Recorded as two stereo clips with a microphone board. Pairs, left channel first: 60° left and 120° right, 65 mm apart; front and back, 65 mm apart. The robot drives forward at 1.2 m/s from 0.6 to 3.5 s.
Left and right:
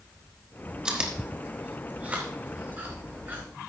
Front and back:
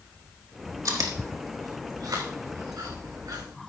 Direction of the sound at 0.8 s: 165° left.